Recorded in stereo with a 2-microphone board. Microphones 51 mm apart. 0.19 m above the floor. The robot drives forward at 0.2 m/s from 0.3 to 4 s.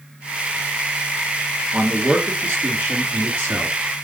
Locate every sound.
1.7 s a man speaking: 35° right (ahead or behind), 2.5 m; by 3.8 s 30° right (ahead or behind), 3 m